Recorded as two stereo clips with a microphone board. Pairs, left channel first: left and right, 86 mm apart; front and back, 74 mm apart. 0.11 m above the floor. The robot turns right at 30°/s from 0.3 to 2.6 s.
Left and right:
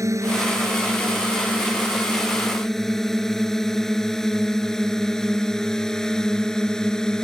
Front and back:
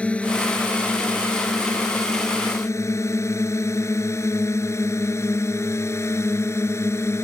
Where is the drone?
65° right; by 7.2 s 15° left.